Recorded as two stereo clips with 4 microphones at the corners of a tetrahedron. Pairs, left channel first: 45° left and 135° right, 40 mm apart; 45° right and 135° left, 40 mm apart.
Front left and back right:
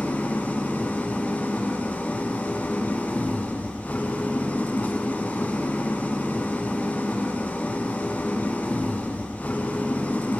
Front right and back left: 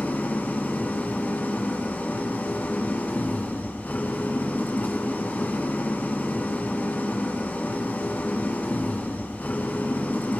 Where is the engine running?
5° right, 4 m.